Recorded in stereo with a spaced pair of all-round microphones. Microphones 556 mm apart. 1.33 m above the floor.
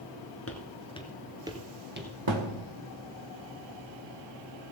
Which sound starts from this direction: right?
A thud, at 2.3 s.